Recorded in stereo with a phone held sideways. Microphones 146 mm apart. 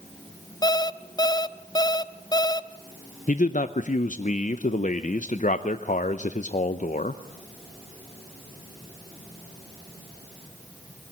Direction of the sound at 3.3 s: 60° left (ahead or behind).